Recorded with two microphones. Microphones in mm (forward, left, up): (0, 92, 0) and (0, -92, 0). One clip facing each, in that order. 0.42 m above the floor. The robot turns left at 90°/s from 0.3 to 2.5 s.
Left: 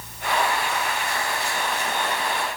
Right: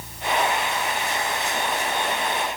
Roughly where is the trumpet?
I don't hear a trumpet.